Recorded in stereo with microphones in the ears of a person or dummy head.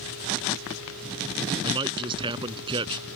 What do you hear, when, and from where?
1.6 s a man speaking: 25° right (ahead or behind)